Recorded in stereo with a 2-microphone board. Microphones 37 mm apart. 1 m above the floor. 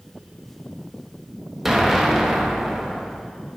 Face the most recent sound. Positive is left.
turn(degrees=-5)  # may be behind; listen again after turning